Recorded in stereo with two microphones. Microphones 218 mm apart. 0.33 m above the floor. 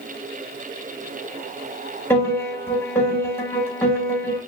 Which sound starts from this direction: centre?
A piano, at 2.1 s.